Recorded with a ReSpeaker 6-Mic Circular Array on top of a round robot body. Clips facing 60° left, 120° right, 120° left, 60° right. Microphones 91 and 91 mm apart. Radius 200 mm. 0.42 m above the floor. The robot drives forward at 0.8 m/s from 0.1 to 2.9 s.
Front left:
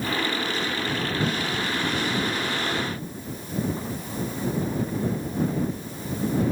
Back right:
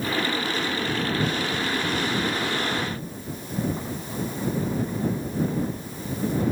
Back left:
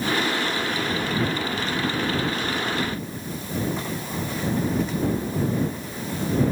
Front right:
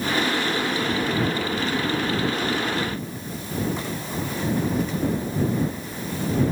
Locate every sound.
Only background noise.